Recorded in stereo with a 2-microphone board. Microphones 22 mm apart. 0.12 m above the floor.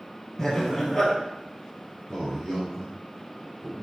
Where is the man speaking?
35° left (ahead or behind), 2 m.